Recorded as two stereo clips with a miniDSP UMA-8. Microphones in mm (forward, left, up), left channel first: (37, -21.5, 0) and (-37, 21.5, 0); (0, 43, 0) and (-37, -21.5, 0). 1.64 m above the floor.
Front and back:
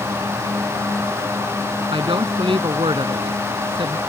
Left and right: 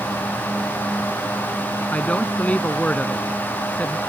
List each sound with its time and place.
1.9 s a woman speaking: 135° left